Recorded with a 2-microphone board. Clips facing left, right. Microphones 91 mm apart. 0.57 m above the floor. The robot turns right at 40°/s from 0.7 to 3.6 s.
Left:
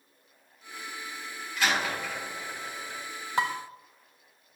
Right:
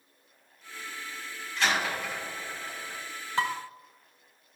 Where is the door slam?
10° left (ahead or behind), 3.5 m; by 3.0 s 50° right (ahead or behind), 3.5 m.